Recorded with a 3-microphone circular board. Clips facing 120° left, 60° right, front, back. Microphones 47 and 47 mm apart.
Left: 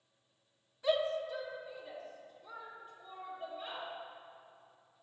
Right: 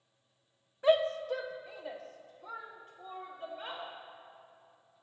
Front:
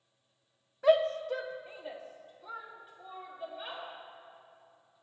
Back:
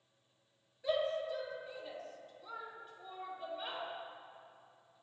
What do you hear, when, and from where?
0.8 s a shout: 5° right, 1.1 m; by 3.8 s 90° right, 3.5 m